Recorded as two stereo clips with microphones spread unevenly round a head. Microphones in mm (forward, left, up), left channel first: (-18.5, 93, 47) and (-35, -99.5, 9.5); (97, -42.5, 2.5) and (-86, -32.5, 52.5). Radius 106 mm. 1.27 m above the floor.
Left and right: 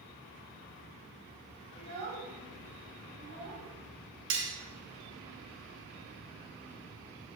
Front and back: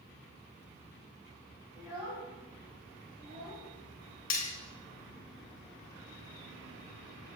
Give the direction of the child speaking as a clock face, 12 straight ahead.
4 o'clock.